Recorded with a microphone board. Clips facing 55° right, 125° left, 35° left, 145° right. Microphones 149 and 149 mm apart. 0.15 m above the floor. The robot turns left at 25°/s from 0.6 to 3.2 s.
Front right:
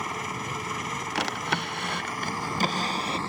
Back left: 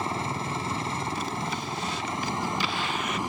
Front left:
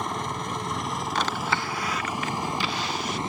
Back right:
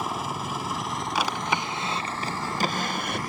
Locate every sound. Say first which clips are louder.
0.0 s a helicopter: back left 3 dB, even; 135° left; by 3.3 s 70° left
1.1 s a drawer: front right 1 dB, back right 1 dB; 65° right; by 3.2 s 115° right